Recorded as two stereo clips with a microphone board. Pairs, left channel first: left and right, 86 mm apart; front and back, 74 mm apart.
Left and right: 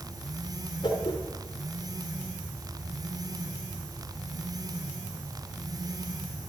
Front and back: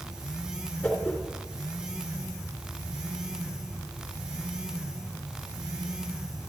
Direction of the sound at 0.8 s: 75° left.